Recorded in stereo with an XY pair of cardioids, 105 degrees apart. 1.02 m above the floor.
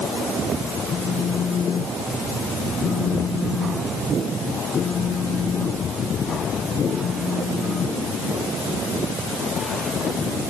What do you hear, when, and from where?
0.9 s a phone buzzing: 45° left